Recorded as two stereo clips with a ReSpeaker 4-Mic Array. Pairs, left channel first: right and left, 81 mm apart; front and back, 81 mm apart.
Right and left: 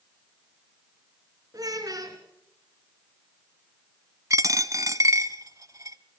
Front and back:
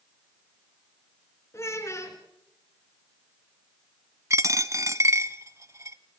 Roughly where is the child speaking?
Ahead left.